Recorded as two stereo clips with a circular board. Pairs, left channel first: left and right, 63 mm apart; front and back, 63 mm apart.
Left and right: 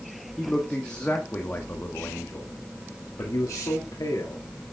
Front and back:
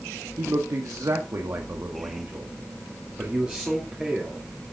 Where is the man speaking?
170° left, 1.8 m; by 4.7 s 95° left, 2.5 m.